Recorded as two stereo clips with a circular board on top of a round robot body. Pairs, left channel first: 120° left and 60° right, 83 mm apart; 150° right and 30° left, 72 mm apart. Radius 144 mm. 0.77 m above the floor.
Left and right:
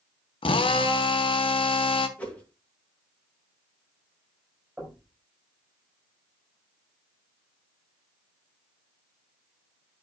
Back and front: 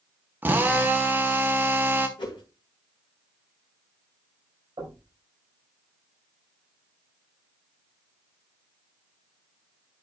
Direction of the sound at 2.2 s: 165° right.